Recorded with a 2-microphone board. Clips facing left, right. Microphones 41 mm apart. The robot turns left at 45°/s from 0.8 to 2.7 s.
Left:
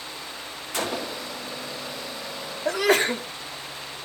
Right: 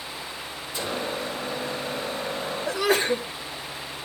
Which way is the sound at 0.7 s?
65° left (ahead or behind).